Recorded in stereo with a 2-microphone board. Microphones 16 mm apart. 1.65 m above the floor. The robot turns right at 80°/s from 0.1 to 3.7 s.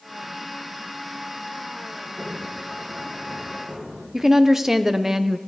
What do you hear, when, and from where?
2.0 s a sliding door: 155° left, 5 m; by 4.0 s 65° right, 5 m
4.1 s a woman speaking: 25° right (ahead or behind), 0.9 m